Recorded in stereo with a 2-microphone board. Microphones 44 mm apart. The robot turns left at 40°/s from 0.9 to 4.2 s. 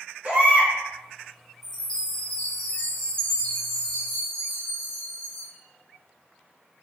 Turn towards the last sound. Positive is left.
turn(degrees=20)  # may be behind; listen again after turning